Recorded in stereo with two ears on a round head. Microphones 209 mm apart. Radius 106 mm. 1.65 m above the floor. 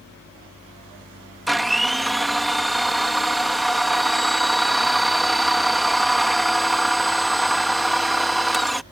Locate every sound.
1.5 s a blender: centre (ahead or behind)